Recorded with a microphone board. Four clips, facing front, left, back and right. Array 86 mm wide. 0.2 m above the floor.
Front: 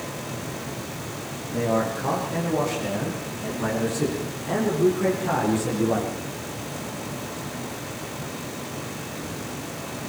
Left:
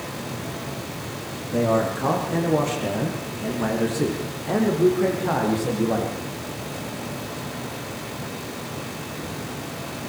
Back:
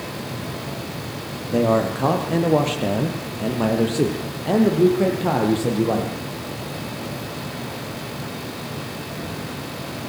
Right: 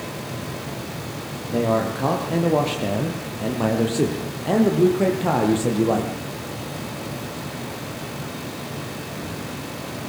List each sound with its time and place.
1.5 s a man speaking: 165° right, 6.5 m; by 6.1 s 130° right, 6.5 m